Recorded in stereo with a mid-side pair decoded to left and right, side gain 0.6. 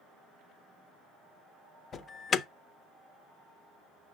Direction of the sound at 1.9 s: 35° left.